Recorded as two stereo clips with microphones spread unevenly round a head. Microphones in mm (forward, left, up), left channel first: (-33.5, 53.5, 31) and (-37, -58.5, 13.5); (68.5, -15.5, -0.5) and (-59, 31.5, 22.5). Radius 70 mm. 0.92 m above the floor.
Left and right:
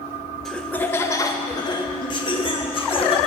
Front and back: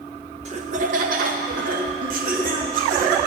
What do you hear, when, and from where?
0.5 s laughter: 175° right, 0.7 m; by 3.2 s 130° left, 1.9 m